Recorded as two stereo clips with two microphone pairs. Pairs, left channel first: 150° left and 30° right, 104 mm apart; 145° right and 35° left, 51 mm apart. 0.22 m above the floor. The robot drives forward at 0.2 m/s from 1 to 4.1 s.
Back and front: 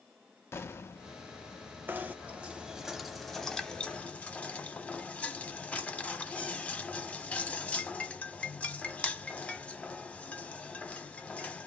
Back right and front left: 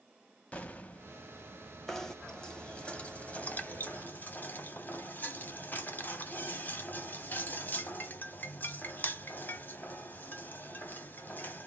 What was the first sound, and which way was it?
An explosion, 165° right.